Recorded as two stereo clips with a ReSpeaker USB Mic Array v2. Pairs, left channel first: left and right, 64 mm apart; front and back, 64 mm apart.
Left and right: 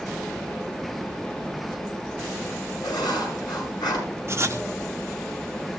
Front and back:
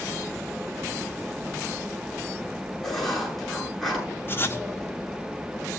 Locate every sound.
2.8 s writing: 90° left, 9 m
4.3 s writing: 50° right, 1.3 m